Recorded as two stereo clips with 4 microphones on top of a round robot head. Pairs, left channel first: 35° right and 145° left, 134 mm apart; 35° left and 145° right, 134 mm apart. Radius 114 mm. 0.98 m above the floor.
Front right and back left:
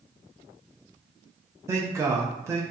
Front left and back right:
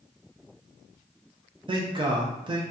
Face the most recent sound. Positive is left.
turn(degrees=-160)